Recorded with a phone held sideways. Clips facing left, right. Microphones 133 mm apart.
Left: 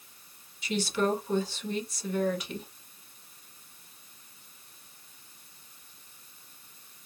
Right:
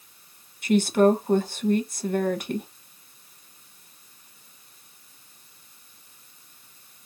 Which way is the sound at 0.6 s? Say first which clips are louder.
Right 10 dB; 50° right (ahead or behind).